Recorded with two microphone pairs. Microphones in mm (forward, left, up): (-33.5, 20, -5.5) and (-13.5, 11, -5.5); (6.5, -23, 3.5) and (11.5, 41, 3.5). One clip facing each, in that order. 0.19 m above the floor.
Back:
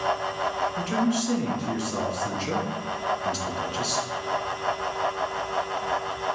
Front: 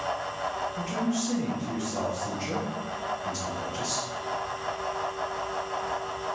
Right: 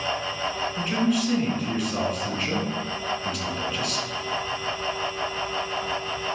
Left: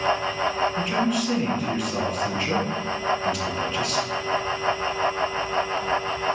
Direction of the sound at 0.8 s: 175° left.